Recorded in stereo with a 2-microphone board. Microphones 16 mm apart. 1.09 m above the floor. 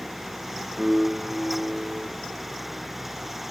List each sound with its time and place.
0.8 s a piano: 30° right (ahead or behind), 4 m